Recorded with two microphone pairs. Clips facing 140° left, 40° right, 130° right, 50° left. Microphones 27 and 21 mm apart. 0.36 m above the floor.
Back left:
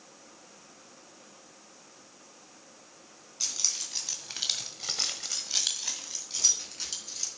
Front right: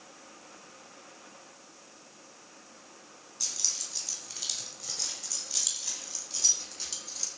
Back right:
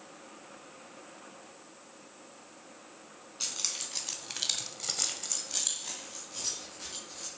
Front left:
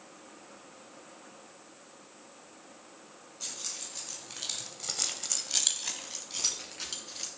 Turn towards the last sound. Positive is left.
turn(degrees=65)